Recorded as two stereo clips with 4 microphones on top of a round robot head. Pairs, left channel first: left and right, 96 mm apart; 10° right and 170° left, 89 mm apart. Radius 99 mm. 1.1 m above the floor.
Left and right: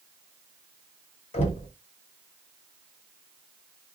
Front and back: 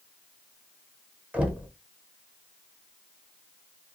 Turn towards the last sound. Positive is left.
turn(degrees=95)